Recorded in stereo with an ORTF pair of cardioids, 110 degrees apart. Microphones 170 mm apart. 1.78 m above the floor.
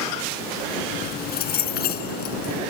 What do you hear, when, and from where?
0.9 s keys jangling: 70° left